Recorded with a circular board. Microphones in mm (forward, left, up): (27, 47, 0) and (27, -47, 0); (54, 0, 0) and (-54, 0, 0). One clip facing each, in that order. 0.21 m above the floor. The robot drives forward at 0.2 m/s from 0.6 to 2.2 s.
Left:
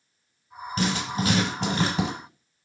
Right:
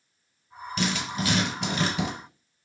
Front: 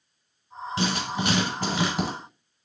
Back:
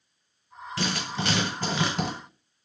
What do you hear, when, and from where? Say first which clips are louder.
0.8 s writing: left 2 dB, front 3 dB; 60° left, 1.1 m; by 2.1 s 75° left, 1.0 m